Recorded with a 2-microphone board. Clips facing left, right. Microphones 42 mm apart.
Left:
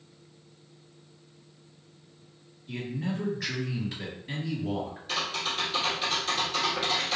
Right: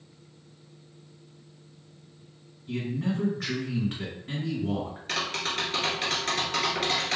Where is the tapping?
55° right (ahead or behind), 1.3 m.